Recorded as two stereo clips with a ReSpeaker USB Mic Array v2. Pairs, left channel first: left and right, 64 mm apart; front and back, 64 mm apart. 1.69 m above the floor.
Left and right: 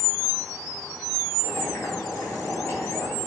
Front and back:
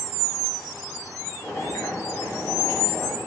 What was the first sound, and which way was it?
Boiling, 40° left.